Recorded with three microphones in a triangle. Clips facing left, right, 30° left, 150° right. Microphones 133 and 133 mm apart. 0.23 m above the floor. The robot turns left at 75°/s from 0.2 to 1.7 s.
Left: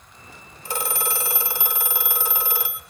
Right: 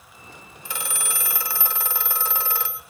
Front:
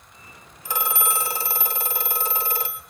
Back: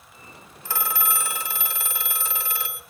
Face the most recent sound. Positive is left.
turn(degrees=20)